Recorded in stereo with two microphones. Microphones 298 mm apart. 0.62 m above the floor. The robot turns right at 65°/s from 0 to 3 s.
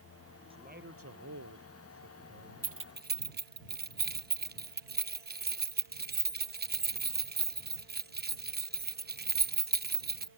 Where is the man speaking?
165° right; by 2.8 s 15° right.